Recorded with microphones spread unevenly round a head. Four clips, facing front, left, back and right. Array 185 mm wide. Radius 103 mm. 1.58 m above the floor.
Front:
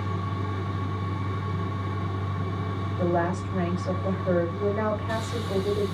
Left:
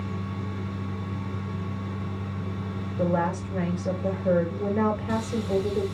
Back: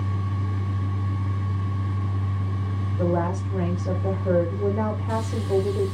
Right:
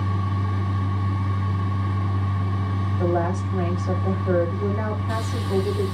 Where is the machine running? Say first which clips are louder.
Right 5 dB, front 1 dB; 75° right, 1.6 m.